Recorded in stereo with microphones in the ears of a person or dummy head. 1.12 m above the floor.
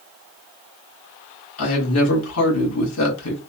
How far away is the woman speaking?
About 1.7 m.